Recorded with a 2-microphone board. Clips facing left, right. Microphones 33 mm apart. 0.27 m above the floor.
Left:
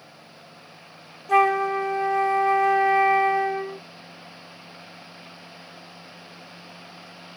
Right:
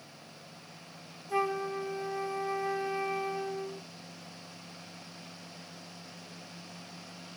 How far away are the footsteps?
No footsteps in this recording.